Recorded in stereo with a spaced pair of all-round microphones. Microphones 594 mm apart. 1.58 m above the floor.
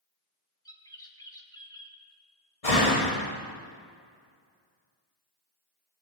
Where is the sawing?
I don't hear sawing.